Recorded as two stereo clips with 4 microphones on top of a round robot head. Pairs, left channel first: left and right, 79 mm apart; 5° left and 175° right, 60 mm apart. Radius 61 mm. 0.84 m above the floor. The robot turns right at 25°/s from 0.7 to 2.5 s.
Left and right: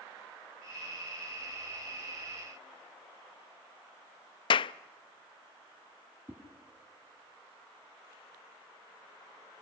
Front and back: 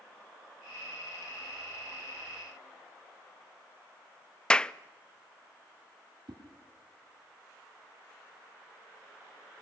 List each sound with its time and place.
4.5 s a clap: 80° left, 0.5 m
6.3 s a whoosh: 160° right, 2.5 m